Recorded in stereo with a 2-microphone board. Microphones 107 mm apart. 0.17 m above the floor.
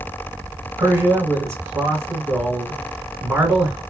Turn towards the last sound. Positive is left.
turn(degrees=-25)  # may be behind; listen again after turning